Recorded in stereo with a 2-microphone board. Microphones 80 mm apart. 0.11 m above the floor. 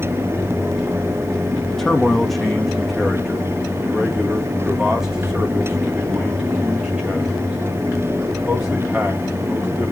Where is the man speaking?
5° left (ahead or behind), 3.5 m; by 9.9 s 15° right (ahead or behind), 10.5 m.